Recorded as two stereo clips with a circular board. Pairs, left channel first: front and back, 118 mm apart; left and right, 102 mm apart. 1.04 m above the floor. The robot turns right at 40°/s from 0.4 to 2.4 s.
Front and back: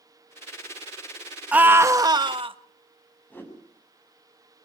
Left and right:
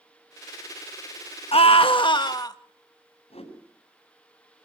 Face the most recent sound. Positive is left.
turn(degrees=75)